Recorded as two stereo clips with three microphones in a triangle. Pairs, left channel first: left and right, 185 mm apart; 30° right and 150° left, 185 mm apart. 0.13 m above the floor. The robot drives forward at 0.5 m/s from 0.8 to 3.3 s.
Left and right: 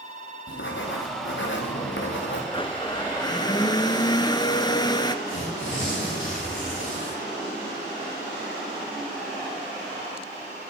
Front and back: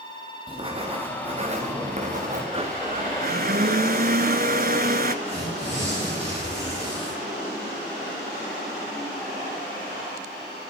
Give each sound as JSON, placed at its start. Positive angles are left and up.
{"t": 0.5, "sound": "writing", "azimuth_deg": 90, "distance_m": 3.0}
{"t": 2.5, "sound": "a blender", "azimuth_deg": 120, "distance_m": 0.7}
{"t": 5.2, "sound": "tearing paper", "azimuth_deg": 95, "distance_m": 9.0}